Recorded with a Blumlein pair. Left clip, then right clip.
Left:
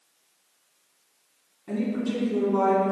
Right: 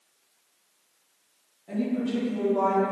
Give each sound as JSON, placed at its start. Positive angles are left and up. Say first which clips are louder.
{"t": 1.7, "sound": "a woman speaking", "louder": "even", "azimuth_deg": 50, "distance_m": 1.4}